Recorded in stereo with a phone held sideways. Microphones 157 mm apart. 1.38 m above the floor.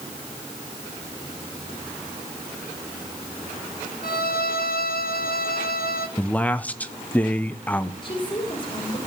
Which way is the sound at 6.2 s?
10° left (ahead or behind).